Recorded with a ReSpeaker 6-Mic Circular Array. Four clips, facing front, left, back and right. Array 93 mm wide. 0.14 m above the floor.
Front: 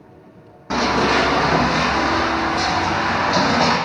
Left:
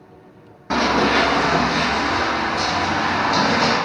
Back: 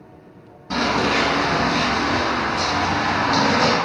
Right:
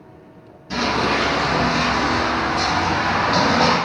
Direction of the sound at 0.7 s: 60° left.